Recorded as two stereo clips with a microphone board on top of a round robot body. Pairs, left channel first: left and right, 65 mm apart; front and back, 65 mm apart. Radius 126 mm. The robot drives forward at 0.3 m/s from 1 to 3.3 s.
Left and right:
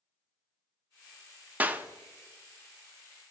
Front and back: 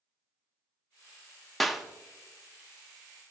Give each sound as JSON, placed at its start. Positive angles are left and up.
{"t": 1.6, "sound": "a clap", "azimuth_deg": -85, "distance_m": 0.8}